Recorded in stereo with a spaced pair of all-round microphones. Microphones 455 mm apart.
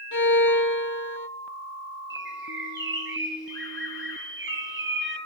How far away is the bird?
About 4.5 m.